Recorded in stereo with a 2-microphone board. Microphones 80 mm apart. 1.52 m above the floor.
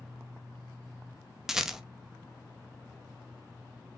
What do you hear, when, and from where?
1.5 s a rattle: 5° right (ahead or behind), 0.5 m